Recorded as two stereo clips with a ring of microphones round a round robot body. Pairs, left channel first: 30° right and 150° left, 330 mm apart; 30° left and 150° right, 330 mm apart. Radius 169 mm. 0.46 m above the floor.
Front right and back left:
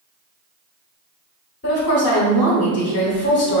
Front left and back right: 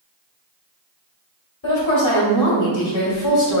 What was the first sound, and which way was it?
A woman speaking, 20° left.